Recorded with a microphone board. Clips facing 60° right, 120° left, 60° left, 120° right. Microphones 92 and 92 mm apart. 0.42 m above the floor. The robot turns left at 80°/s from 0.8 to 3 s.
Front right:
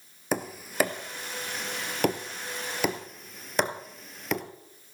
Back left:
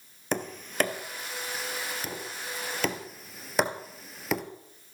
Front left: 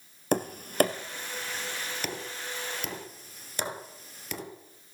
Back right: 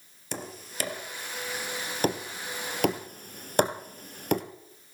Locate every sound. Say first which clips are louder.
0.3 s tapping: front right 1 dB, front left 12 dB; 25° left, 2.0 m; by 4.4 s 150° right, 2.0 m